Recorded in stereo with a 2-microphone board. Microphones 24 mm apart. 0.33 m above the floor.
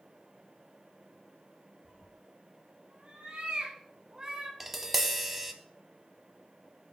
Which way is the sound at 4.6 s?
15° right (ahead or behind).